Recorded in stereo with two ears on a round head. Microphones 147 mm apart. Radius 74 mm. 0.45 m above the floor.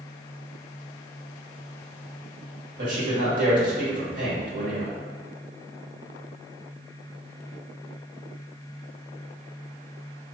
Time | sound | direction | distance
2.8 | a man speaking | 55° right (ahead or behind) | 1.6 m